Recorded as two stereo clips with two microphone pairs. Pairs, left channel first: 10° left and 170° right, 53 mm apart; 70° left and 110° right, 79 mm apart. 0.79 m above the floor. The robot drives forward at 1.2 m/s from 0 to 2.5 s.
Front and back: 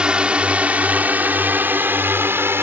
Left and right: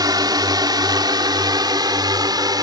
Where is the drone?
100° right; by 2.6 s 130° right.